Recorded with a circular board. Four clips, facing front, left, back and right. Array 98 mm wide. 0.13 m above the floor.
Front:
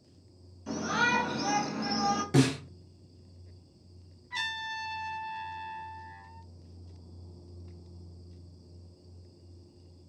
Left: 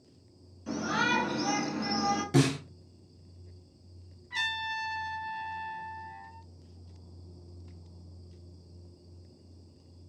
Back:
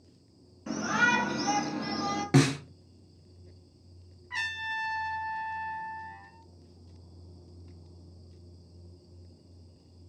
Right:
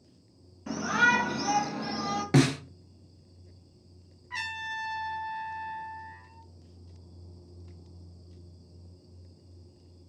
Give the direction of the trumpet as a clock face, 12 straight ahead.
5 o'clock.